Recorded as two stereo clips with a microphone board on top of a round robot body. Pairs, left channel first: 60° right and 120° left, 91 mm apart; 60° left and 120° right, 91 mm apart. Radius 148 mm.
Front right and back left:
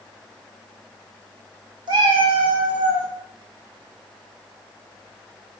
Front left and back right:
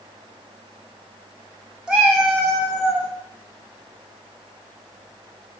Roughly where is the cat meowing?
Behind left.